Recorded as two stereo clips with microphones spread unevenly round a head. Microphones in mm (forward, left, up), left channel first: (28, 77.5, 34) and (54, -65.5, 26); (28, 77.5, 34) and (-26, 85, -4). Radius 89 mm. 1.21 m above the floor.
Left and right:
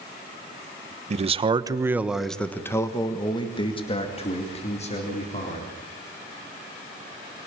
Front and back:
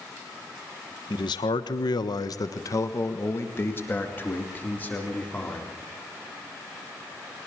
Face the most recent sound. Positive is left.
turn(degrees=60)